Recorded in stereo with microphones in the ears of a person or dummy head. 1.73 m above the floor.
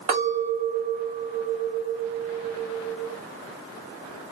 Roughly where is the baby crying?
No baby crying in this recording.